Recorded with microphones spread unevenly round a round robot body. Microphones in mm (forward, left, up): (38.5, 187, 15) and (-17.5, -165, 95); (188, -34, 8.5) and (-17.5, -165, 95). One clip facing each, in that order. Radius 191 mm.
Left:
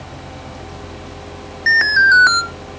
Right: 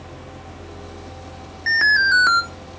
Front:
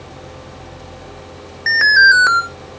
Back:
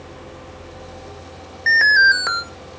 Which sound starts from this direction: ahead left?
An alarm, at 1.7 s.